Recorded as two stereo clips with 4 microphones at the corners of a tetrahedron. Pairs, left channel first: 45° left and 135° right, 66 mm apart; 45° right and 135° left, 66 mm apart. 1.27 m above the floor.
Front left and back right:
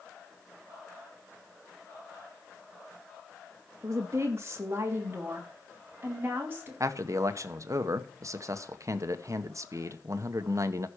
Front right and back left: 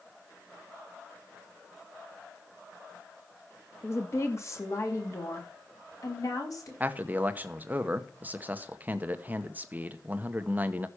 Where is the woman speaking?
95° right, 2 m; by 6.7 s 80° right, 4.5 m.